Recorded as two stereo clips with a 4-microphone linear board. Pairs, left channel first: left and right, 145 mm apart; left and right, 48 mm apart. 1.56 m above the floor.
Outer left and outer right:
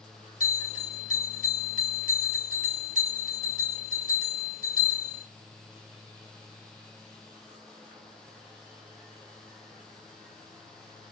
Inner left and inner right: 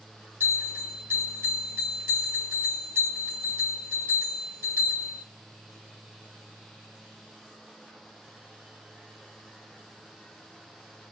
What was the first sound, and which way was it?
A bell, 70° right (ahead or behind).